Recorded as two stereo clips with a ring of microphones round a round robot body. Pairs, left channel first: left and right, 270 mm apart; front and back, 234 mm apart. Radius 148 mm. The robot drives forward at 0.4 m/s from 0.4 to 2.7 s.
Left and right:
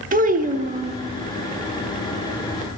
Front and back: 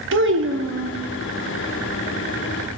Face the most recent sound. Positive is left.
turn(degrees=-165)